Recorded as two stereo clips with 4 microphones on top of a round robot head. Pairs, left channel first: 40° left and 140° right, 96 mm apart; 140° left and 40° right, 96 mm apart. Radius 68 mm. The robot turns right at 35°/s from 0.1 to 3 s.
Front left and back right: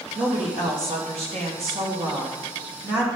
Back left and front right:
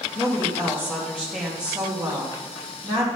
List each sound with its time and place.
0.1 s a woman speaking: 175° right, 3 m; by 3.1 s 75° right, 3 m